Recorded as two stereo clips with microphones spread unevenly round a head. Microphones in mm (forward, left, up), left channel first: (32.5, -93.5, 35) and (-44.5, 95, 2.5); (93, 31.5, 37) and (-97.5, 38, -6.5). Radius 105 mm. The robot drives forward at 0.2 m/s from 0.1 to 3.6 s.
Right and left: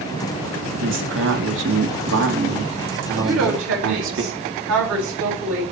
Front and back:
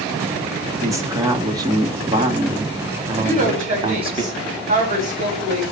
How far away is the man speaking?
About 2.5 m.